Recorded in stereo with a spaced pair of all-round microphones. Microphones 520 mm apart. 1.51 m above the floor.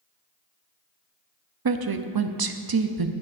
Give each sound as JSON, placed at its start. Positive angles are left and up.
{"t": 1.6, "sound": "a woman speaking", "side_deg": -45, "distance_m": 0.5}